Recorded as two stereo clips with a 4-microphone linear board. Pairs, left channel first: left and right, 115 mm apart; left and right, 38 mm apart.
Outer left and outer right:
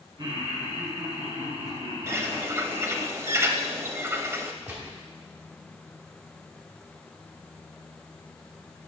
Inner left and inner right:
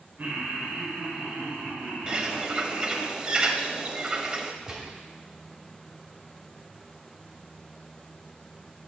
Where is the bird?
25° right (ahead or behind), 0.6 m.